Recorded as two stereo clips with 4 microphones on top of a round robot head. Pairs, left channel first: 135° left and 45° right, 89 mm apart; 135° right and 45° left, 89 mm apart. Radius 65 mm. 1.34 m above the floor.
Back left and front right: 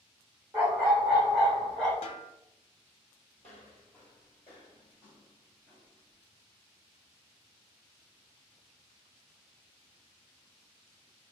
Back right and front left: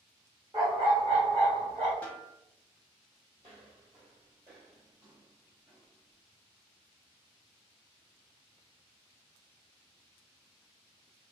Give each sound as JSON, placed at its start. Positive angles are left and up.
{"t": 0.5, "sound": "a dog barking", "azimuth_deg": 10, "distance_m": 1.3}
{"t": 2.0, "sound": "a snare drum", "azimuth_deg": 150, "distance_m": 0.6}
{"t": 3.4, "sound": "footsteps", "azimuth_deg": 65, "distance_m": 1.6}